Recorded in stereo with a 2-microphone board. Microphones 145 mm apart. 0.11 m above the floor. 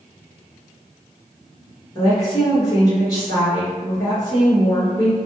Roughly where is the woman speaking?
Left.